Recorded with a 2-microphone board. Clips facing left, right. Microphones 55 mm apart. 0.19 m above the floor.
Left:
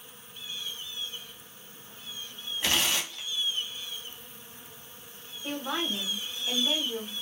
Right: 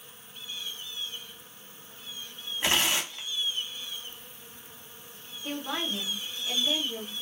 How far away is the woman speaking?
About 1.7 m.